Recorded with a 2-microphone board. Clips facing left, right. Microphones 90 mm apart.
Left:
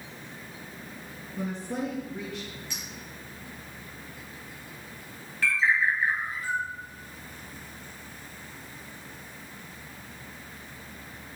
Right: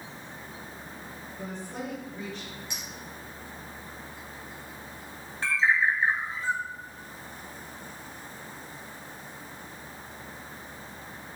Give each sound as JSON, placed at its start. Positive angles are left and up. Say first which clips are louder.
{"t": 1.4, "sound": "a woman speaking", "louder": "left 6 dB", "side_deg": 75, "distance_m": 5.0}
{"t": 2.7, "sound": "a clink", "louder": "even", "side_deg": -20, "distance_m": 4.5}
{"t": 5.4, "sound": "a bird", "louder": "even", "side_deg": -25, "distance_m": 1.7}